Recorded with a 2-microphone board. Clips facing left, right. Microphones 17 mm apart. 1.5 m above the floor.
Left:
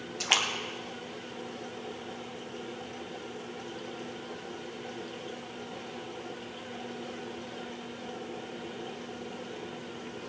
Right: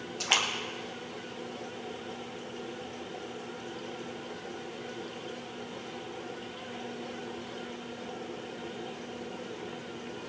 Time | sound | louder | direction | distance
0.2 | a splash | left 1 dB | 5° left (ahead or behind) | 1.2 m